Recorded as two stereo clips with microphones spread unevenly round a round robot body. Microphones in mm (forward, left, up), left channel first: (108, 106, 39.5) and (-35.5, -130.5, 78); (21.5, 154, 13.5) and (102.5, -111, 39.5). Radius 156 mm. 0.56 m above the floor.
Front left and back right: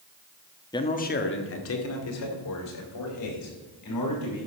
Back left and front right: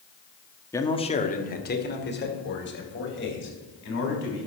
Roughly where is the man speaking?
Ahead left.